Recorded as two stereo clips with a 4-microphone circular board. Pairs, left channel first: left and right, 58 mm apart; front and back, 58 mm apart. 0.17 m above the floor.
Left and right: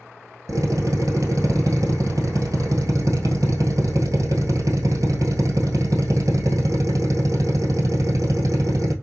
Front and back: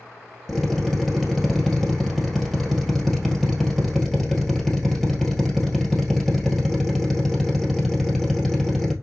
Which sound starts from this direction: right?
A drill, at 0.5 s.